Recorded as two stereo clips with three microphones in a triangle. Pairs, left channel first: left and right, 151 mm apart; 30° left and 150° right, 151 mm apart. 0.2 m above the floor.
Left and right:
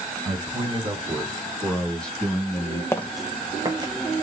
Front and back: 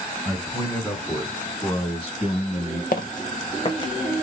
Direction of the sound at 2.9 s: 20° left.